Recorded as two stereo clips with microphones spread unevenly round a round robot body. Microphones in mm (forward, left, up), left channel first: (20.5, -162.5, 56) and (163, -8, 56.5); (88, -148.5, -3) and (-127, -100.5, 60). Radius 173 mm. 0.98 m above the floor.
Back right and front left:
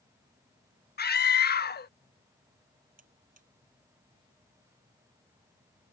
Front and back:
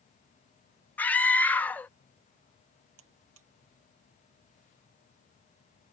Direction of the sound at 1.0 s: 90° right.